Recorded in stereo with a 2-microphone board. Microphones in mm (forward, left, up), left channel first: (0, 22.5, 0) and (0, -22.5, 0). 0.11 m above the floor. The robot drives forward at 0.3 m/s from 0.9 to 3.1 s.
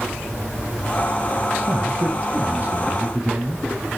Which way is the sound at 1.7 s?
35° right (ahead or behind).